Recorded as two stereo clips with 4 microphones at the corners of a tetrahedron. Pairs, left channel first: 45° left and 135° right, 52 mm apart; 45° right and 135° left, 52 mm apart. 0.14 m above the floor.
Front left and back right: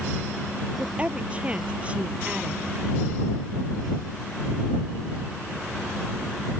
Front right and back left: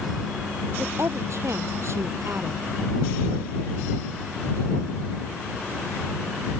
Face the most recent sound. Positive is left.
turn(degrees=165)